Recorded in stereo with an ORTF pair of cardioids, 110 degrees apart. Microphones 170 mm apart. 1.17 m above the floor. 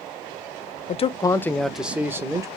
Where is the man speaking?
40° left, 0.6 m; by 2.5 s 20° right, 1.1 m.